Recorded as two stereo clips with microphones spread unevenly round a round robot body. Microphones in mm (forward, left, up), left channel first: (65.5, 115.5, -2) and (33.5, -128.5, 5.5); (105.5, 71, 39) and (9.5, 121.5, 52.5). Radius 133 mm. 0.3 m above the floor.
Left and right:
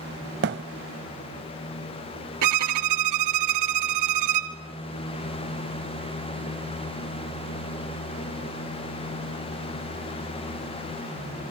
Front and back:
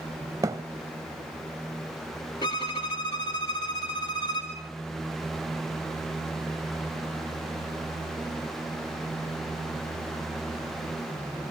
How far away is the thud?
About 0.8 m.